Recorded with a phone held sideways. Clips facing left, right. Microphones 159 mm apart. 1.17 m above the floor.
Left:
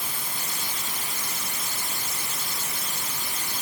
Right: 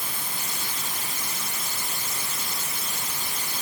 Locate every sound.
Only background noise.